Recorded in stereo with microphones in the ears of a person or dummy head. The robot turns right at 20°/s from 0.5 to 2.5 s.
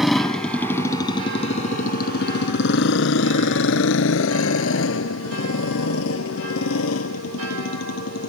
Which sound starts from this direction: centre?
A motorcycle, at 0.0 s.